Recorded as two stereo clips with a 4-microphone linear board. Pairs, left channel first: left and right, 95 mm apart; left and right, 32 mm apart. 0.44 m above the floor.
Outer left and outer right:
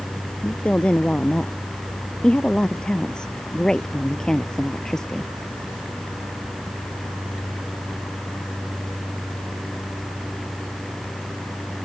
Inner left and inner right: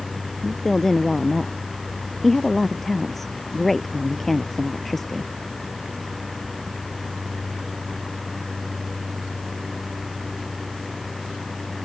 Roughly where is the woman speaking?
Centre.